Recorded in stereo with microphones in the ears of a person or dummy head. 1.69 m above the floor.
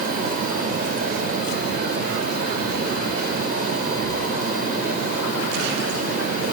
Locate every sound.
Only background noise.